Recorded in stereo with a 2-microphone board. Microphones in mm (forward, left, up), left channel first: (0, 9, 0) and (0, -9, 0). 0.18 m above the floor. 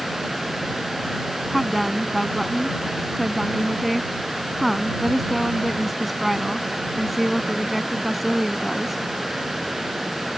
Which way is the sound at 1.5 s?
Centre (ahead or behind).